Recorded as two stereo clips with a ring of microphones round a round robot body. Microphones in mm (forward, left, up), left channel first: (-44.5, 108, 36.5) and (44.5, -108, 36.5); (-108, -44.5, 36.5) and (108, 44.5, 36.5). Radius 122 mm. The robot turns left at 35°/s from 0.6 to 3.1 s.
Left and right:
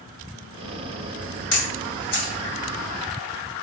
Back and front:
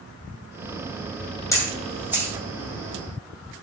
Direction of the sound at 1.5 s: 125° left.